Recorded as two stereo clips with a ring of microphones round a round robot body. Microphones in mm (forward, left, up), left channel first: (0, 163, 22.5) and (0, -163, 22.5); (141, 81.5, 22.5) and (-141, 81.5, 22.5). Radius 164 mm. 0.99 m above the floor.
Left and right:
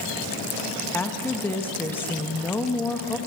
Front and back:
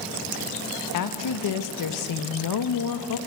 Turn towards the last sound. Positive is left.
turn(degrees=5)